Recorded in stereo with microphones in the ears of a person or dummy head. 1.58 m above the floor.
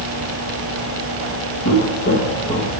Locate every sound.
1.6 s footsteps: 50° left (ahead or behind), 3.5 m; by 2.7 s 35° left (ahead or behind), 3.5 m